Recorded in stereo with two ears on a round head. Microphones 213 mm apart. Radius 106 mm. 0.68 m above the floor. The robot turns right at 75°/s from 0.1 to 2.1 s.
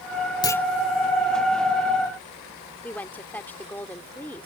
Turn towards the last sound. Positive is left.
turn(degrees=10)  # may be behind; listen again after turning